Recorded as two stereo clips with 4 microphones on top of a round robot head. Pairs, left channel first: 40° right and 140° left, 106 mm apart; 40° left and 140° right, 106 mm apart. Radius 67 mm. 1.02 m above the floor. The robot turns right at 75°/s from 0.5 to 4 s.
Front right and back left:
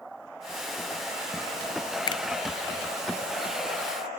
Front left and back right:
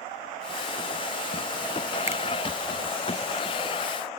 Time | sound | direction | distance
2.1 | a finger snap | 85° right | 0.6 m